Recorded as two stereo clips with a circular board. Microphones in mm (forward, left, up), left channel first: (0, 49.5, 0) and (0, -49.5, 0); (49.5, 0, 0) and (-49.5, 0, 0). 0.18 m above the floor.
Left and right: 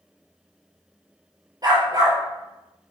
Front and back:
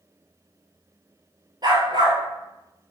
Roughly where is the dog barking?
Behind right.